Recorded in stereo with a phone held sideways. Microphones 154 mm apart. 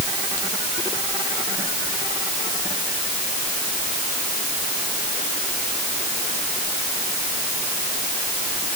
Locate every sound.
Only background noise.